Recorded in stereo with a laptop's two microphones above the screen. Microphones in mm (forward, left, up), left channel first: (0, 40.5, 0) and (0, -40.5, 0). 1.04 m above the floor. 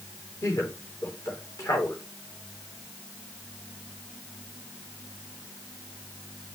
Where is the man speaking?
40° left (ahead or behind), 3.5 m.